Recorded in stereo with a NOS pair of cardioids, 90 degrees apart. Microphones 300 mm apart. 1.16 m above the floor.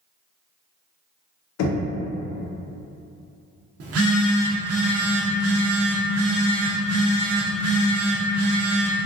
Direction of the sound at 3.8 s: 55° right.